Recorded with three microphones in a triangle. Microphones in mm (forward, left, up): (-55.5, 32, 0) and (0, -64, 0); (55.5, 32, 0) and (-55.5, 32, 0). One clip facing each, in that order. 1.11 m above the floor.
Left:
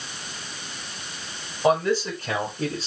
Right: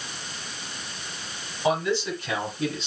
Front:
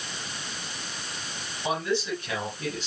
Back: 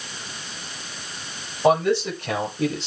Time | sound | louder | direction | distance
1.6 | a man speaking | left 3 dB, back 9 dB | 160° left | 4.5 m